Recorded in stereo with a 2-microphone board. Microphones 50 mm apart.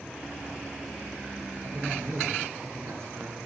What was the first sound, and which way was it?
A man speaking, 55° right (ahead or behind).